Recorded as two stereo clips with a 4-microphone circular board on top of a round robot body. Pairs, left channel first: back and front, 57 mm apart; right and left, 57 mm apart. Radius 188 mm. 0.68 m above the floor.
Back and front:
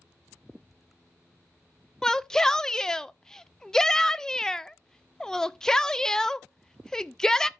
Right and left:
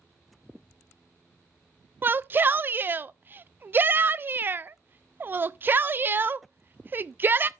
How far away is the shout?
About 0.5 m.